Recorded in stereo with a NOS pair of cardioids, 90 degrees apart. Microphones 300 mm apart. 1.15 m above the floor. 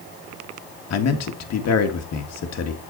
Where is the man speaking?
60° left, 1.9 m.